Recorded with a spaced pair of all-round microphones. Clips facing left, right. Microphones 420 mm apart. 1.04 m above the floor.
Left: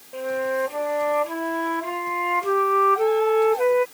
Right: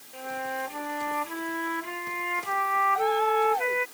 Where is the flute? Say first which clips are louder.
Left 12 dB; 80° left.